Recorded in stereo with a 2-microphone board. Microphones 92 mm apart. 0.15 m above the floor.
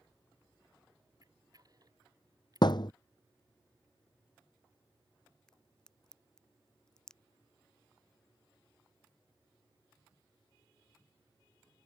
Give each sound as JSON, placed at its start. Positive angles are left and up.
{"t": 1.2, "sound": "a camera shutter", "side_deg": -45}
{"t": 2.6, "sound": "a thud", "side_deg": 55}
{"t": 5.5, "sound": "a crack", "side_deg": 5}